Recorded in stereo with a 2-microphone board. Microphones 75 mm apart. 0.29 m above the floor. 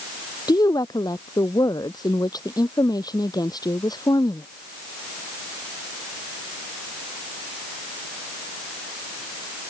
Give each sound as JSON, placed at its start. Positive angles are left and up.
{"t": 0.5, "sound": "a woman speaking", "side_deg": 60}